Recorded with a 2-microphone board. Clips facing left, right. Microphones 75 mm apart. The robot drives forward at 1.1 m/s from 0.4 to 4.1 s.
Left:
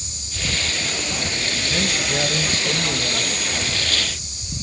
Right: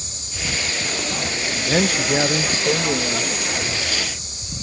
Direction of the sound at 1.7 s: 55° right (ahead or behind).